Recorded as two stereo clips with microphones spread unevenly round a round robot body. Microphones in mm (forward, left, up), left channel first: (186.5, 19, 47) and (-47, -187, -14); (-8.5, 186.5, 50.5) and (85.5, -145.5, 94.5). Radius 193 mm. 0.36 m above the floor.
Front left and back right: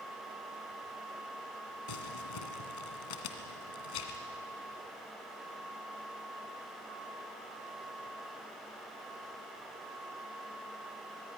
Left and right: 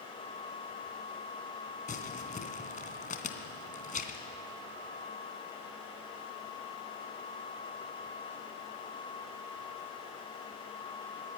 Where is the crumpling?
40° left, 2.5 m.